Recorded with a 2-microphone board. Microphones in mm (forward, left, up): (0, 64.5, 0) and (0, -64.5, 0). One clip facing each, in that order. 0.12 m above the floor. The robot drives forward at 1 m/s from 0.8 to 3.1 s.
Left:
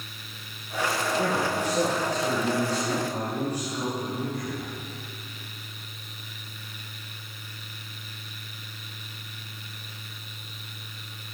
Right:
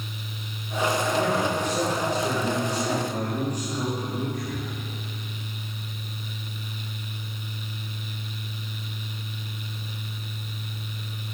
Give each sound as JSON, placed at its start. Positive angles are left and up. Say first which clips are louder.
{"t": 1.2, "sound": "a man speaking", "louder": "right 2 dB", "side_deg": 10, "distance_m": 5.0}